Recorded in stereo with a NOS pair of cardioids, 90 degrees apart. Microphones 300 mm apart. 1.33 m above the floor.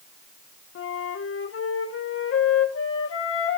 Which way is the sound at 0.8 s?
50° left.